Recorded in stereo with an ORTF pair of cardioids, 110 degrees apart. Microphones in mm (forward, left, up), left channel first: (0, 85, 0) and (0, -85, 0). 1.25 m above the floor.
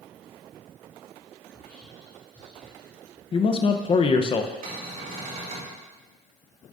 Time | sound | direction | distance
1.5 | whispering | 10° left | 2.5 m
3.3 | a man speaking | 30° left | 0.7 m
4.6 | a cupboard door | 55° right | 3 m